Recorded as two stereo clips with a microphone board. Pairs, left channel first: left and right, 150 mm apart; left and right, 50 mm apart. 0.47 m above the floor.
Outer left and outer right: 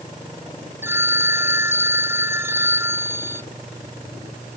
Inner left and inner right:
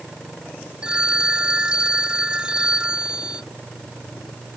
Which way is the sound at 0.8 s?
15° right (ahead or behind).